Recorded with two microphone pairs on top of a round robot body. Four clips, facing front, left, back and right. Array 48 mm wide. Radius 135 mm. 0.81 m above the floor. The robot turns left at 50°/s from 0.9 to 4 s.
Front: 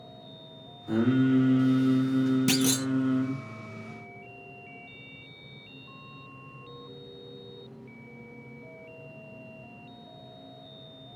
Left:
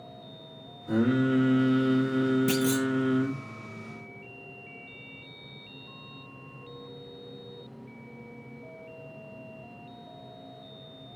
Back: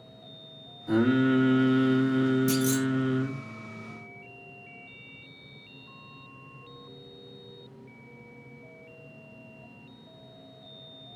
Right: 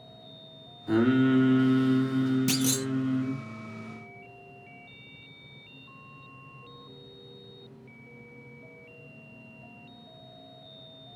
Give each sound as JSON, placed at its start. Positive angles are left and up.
{"t": 0.9, "sound": "singing", "azimuth_deg": -120, "distance_m": 2.5}
{"t": 2.5, "sound": "a clunk", "azimuth_deg": 0, "distance_m": 0.8}